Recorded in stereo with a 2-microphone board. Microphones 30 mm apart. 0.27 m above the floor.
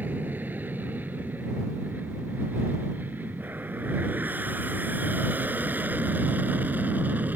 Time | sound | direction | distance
0.0 | an aircraft | 70° right (ahead or behind) | ?